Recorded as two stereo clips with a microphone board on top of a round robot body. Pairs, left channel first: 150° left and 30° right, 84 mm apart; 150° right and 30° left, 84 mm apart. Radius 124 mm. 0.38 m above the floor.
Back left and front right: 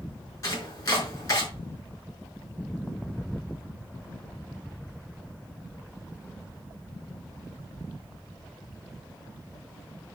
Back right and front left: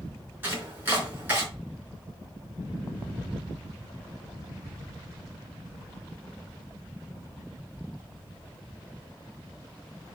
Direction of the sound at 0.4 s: 100° left.